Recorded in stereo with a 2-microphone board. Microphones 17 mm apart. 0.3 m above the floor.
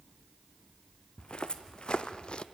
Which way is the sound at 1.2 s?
60° left (ahead or behind).